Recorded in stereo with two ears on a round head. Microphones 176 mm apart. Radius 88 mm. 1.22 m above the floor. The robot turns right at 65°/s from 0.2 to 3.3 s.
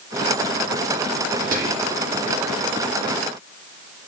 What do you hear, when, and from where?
1.5 s whispering: 45° right, 2 m; by 2.0 s 10° right, 2 m